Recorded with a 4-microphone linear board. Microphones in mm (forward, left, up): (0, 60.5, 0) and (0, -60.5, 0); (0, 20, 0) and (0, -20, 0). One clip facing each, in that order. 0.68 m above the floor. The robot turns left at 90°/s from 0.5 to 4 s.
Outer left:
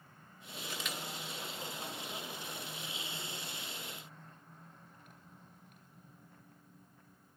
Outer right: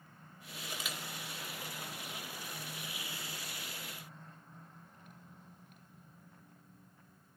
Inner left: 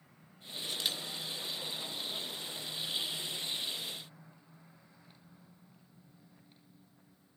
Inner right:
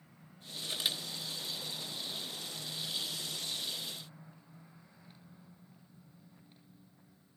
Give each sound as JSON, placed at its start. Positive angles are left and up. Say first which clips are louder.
{"t": 0.6, "sound": "a camera shutter", "louder": "outer left 1 dB, inner right 1 dB", "side_deg": -25, "distance_m": 3.5}